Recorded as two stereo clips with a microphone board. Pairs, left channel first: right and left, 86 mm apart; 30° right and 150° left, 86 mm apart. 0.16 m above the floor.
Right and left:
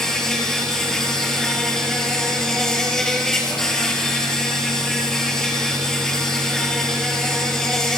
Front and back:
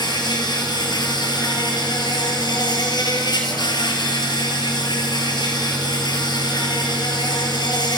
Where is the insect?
5° right, 5.5 m.